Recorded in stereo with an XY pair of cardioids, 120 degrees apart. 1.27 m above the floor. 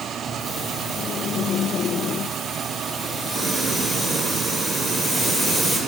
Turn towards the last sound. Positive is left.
turn(degrees=10)